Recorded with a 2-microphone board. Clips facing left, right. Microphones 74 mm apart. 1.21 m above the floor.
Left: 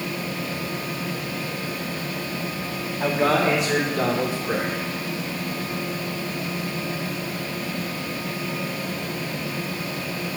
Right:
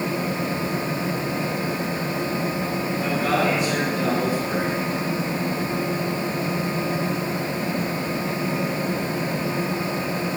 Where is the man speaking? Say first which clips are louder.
Left 3 dB; 90° left, 1.9 m; by 4.8 s 65° left (ahead or behind), 3 m.